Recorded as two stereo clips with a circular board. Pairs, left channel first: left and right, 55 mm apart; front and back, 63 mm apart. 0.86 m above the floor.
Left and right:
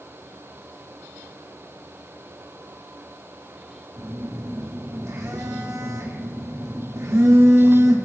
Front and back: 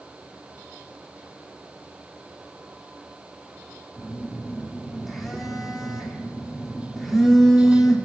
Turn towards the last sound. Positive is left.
turn(degrees=-90)